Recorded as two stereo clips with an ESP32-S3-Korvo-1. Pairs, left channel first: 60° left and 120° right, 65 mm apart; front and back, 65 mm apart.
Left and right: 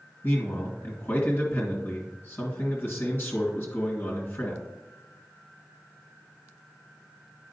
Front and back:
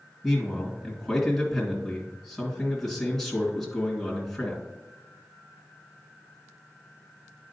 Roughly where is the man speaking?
Left.